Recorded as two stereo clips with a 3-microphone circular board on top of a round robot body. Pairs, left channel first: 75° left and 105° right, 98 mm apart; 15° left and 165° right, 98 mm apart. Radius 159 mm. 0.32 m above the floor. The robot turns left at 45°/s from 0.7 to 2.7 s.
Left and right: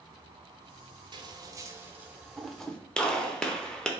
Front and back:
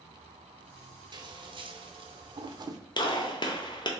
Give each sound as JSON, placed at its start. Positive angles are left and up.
{"t": 1.1, "sound": "scissors", "azimuth_deg": -135, "distance_m": 0.7}
{"t": 3.0, "sound": "a gunshot", "azimuth_deg": -5, "distance_m": 0.9}